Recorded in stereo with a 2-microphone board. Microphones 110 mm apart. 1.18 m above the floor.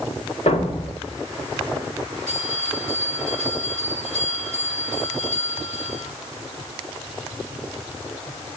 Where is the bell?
5° left (ahead or behind), 9.5 m.